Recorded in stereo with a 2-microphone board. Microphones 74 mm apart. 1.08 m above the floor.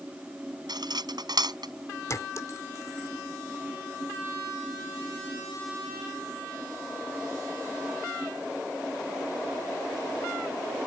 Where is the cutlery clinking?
70° right (ahead or behind).